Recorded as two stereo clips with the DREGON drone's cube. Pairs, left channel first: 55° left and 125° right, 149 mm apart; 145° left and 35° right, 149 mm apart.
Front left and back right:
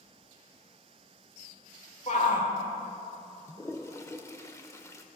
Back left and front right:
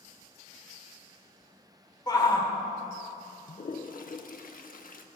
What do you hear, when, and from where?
2.1 s a shout: 85° left, 1.6 m
3.5 s a toilet flushing: 125° left, 0.7 m